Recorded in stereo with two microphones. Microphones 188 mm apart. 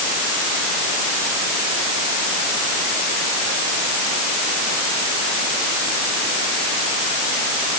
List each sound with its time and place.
Only background noise.